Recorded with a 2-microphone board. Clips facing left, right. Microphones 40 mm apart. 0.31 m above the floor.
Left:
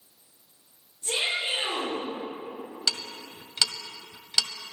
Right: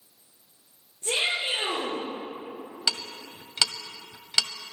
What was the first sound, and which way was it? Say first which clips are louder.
A shout: right 1 dB; 55° right (ahead or behind).